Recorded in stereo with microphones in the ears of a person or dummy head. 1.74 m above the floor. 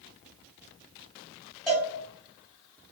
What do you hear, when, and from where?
1.7 s a cowbell: 5° left (ahead or behind), 1.8 m